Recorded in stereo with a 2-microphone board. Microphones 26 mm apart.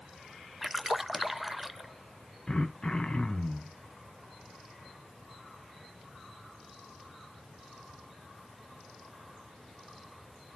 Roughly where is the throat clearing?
Left.